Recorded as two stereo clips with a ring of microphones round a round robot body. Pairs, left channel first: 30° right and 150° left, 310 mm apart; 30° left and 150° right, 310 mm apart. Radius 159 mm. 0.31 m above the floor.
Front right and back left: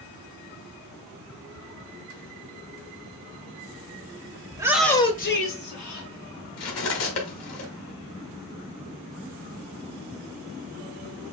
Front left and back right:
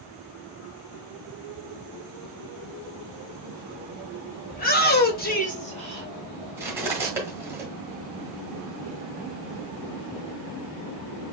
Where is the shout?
80° left, 1.4 m; by 6.1 s 40° right, 1.9 m.